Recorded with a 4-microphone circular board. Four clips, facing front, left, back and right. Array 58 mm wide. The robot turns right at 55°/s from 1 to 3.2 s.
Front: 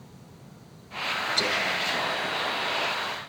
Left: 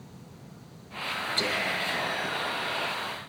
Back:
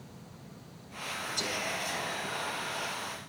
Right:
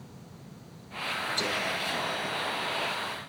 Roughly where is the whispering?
Ahead.